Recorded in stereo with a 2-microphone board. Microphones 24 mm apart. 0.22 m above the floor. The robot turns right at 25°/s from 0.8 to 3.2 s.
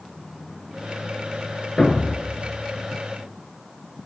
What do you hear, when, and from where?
1.8 s a thud: 25° left (ahead or behind), 1.6 m; by 2.4 s 40° left (ahead or behind), 1.6 m